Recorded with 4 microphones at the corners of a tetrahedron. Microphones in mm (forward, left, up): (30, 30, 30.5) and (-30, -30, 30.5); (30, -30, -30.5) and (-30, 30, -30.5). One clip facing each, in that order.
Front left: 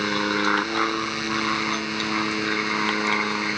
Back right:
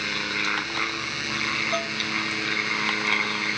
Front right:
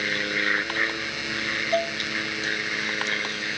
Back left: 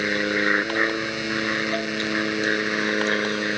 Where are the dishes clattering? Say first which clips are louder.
Even, front right 2 dB; 105° right.